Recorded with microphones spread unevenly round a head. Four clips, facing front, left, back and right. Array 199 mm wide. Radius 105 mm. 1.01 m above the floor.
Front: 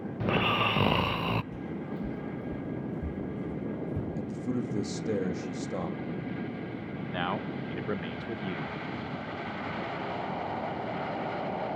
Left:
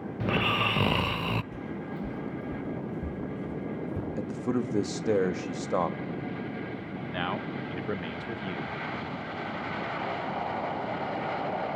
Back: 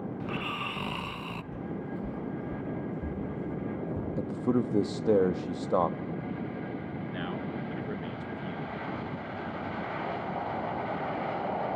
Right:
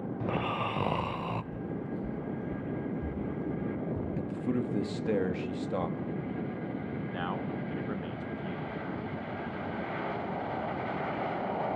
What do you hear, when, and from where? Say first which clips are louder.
0.2 s snoring: left 5 dB, front 11 dB; 30° left, 0.5 m
1.5 s footsteps: even, even; 20° left, 1.1 m; by 4.1 s 5° right, 4 m
4.2 s a man speaking: left 4 dB, back 7 dB; 150° left, 1.4 m
7.1 s a man speaking: left 4 dB, front 4 dB; 20° left, 1.3 m